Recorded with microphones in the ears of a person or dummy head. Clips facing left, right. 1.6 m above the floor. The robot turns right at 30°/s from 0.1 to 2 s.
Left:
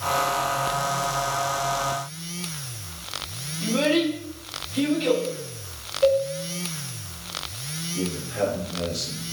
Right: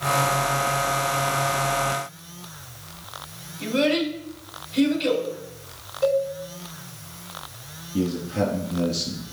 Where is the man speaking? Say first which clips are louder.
Right 4 dB; 60° right (ahead or behind), 3 m.